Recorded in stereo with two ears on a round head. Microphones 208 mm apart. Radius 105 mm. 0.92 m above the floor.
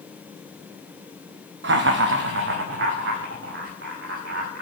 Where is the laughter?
50° right (ahead or behind), 0.8 m; by 4.6 s 55° right (ahead or behind), 2.5 m.